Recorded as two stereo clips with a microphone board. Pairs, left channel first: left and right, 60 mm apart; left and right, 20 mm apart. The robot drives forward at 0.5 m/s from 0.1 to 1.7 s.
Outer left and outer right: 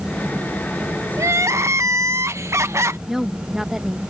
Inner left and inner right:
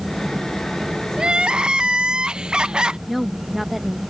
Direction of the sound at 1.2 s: 55° right (ahead or behind).